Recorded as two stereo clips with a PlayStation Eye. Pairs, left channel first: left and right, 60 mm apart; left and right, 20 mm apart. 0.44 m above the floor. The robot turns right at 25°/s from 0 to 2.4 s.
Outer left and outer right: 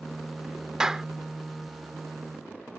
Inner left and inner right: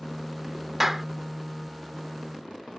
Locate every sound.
0.8 s a clap: 10° right (ahead or behind); by 1.1 s 5° right (ahead or behind)